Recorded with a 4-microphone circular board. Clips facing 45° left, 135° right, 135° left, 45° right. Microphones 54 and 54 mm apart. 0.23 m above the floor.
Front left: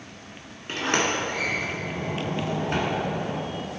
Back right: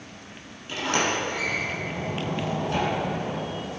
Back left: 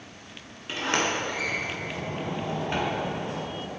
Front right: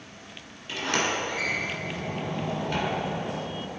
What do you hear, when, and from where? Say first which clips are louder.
0.7 s a sliding door: front left 1 dB, back left 1 dB; 80° left, 2 m